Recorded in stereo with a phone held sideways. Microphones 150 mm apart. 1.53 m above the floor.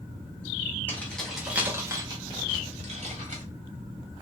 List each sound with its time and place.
0.9 s keys jangling: 15° left (ahead or behind), 1.2 m; by 3.4 s 60° right (ahead or behind), 1.7 m